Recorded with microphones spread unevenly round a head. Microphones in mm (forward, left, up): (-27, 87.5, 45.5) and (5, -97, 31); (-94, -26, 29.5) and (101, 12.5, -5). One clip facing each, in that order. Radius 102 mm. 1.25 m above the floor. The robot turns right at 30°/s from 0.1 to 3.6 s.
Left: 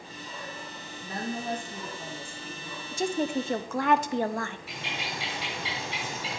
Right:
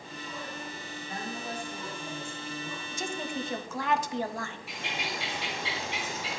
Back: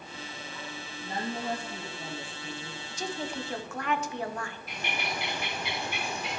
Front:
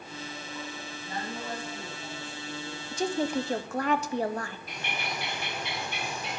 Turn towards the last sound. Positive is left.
turn(degrees=115)